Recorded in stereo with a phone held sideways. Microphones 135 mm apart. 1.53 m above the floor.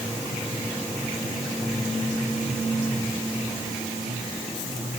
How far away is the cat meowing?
No cat meowing in this recording.